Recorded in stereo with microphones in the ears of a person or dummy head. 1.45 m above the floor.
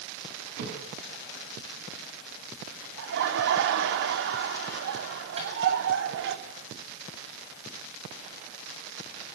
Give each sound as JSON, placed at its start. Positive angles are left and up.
{"t": 0.6, "sound": "a thud", "side_deg": -60, "distance_m": 6.5}
{"t": 3.0, "sound": "laughter", "side_deg": -65, "distance_m": 3.5}
{"t": 5.4, "sound": "a microwave", "side_deg": -30, "distance_m": 7.5}